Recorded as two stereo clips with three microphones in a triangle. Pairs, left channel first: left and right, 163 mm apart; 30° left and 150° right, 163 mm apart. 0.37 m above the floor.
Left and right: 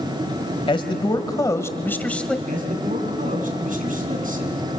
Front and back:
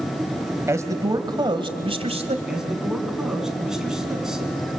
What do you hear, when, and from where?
0.7 s a man speaking: 140° left, 1.8 m; by 2.4 s 175° left, 1.7 m
2.5 s a man speaking: 65° right, 3.5 m